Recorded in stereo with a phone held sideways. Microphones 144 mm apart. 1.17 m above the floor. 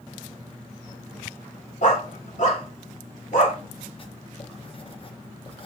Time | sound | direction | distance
1.8 | a dog barking | 55° left (ahead or behind) | 1.4 m
4.0 | writing | 40° left (ahead or behind) | 0.7 m